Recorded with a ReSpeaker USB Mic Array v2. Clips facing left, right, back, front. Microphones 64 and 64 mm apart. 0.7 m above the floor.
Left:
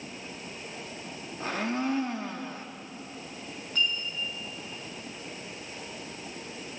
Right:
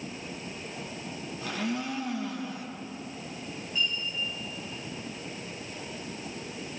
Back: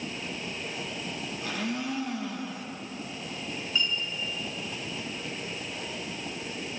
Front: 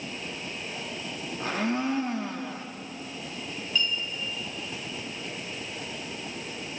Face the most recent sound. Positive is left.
turn(degrees=110)